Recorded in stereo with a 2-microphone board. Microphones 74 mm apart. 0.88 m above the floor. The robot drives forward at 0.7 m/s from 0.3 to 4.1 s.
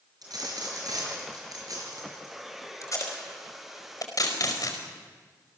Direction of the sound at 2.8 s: 45° left (ahead or behind).